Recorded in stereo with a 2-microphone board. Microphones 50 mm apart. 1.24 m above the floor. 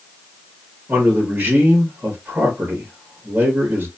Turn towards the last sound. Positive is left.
turn(degrees=-35)  # may be behind; listen again after turning